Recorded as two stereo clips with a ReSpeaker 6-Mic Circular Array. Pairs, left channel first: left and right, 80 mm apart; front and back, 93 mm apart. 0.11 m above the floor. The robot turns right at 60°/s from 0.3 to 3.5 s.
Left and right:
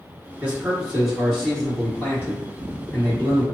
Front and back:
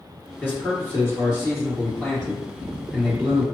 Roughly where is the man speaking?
Ahead right.